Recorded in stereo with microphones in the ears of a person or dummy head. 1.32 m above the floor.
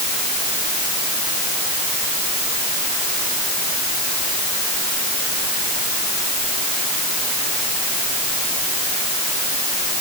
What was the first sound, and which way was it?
Only background noise.